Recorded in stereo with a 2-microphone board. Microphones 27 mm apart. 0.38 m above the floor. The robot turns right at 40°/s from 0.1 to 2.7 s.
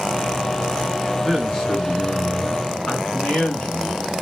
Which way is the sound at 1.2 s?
Straight ahead.